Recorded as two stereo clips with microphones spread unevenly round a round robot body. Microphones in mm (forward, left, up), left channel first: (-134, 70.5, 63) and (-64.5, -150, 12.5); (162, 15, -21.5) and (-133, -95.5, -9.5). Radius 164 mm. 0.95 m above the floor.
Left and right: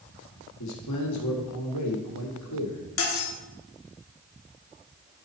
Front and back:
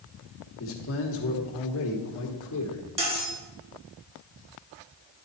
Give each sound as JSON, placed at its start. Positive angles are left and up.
{"t": 0.6, "sound": "a man speaking", "azimuth_deg": 75, "distance_m": 1.4}
{"t": 3.0, "sound": "cutlery clinking", "azimuth_deg": 125, "distance_m": 1.3}